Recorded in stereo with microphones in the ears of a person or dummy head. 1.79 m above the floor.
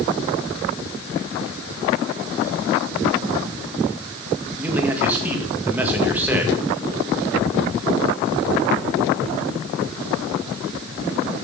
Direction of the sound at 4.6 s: 15° right (ahead or behind).